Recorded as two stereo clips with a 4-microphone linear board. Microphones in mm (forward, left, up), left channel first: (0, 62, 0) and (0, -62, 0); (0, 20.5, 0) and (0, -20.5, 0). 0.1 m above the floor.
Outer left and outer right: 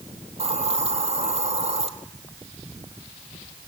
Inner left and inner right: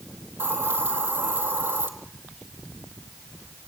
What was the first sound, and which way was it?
A hiss, 50° right (ahead or behind).